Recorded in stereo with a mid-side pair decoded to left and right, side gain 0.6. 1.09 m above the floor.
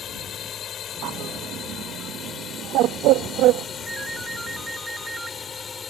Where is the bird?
65° right.